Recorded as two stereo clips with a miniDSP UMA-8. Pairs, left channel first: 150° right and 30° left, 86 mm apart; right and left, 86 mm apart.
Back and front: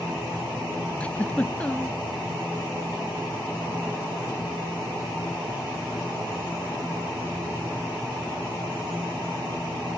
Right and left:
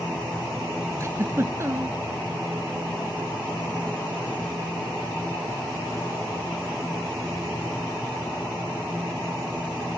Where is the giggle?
140° left, 0.7 m.